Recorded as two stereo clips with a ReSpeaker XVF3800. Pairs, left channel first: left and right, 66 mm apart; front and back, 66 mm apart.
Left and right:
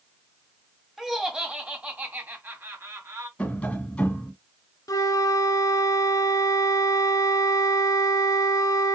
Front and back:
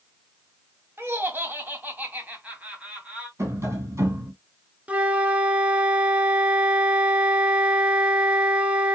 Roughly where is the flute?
Left.